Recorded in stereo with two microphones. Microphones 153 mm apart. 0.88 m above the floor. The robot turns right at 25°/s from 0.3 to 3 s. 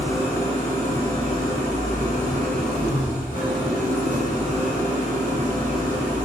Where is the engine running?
45° left, 1.9 m; by 6.2 s 115° left, 1.9 m.